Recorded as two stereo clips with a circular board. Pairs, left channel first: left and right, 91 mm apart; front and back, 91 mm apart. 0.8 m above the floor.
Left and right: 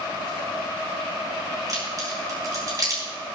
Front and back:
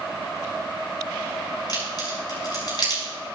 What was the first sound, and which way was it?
A crack, 40° right.